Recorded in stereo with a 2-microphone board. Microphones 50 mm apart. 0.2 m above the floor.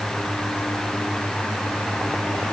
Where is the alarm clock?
No alarm clock in this recording.